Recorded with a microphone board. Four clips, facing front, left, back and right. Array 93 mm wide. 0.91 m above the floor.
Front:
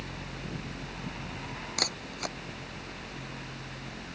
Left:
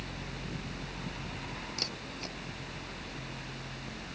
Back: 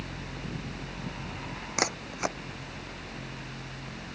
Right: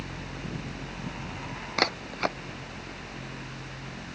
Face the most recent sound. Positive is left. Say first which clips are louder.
# right 13 dB, back 7 dB
turn(degrees=-115)